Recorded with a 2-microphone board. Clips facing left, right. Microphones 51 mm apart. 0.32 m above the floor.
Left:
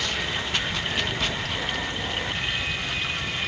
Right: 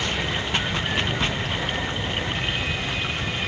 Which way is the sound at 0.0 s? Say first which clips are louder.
Right 2 dB; 25° right (ahead or behind).